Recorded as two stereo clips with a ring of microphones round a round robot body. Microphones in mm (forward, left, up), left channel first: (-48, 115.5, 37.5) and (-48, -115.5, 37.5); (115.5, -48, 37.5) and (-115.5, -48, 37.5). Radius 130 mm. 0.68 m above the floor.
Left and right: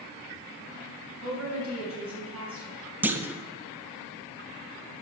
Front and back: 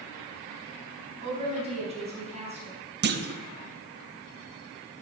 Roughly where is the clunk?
Behind.